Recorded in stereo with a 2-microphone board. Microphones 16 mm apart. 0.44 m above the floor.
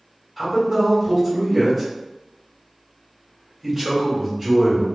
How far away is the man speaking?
About 1.7 m.